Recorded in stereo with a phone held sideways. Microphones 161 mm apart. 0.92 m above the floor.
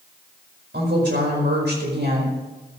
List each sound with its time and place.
0.7 s a woman speaking: 80° right, 4.5 m